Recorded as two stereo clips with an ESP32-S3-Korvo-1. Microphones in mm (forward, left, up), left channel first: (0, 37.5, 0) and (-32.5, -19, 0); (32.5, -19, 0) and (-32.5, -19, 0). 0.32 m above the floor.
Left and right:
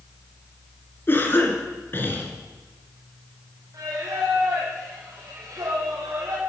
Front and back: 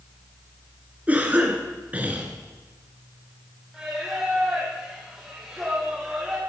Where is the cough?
110° left, 3.5 m.